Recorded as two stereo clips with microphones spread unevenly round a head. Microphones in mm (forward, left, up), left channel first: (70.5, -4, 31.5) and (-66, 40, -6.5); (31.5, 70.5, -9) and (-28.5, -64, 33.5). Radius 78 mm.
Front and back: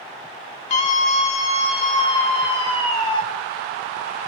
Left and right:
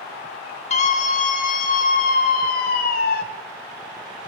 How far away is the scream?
About 3 m.